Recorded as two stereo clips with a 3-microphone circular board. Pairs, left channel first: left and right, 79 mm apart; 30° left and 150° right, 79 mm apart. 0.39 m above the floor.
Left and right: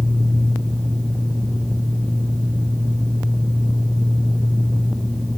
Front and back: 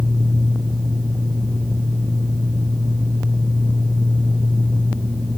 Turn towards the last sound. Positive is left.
No sound to turn to.